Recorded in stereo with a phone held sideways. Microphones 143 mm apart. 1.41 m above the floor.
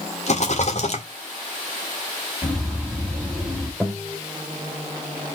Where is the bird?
Centre (ahead or behind), 2.5 m.